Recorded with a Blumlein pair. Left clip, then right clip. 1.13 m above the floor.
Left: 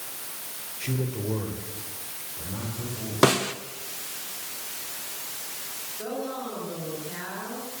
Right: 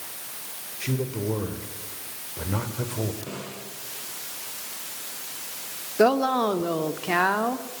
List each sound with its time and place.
0.8 s a man speaking: 10° right, 4 m; by 3.1 s 35° right, 4.5 m
3.2 s a snare drum: 45° left, 1.6 m
6.0 s a woman speaking: 40° right, 2.5 m